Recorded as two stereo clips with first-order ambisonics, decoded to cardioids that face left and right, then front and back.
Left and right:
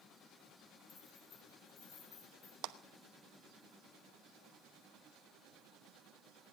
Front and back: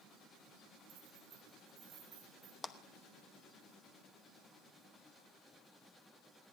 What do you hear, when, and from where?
0.9 s keys jangling: 135° left, 7 m; by 2.5 s 130° left, 9 m
2.6 s a clap: 75° right, 0.9 m